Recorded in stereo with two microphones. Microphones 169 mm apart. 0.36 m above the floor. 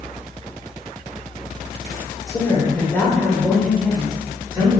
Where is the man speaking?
20° left (ahead or behind), 1.1 m; by 4.8 s 20° right (ahead or behind), 1.3 m.